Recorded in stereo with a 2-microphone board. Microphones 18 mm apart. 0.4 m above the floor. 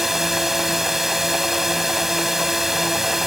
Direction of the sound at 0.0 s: 20° right (ahead or behind).